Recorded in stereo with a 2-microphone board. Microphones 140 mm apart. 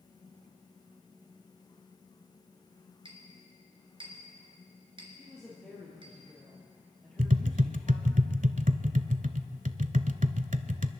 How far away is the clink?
About 2.5 m.